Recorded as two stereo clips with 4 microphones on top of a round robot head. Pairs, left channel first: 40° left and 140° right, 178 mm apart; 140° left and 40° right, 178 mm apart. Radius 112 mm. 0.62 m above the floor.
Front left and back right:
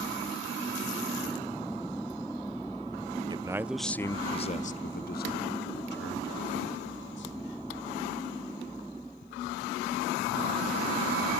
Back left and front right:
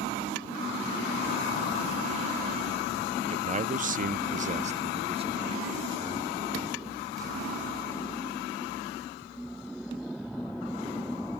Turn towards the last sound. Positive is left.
turn(degrees=35)